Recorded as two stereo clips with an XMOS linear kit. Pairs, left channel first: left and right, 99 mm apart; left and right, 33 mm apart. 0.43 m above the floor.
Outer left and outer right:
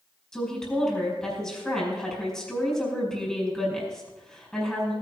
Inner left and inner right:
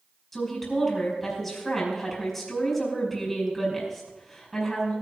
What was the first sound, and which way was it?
A woman speaking, 5° left (ahead or behind).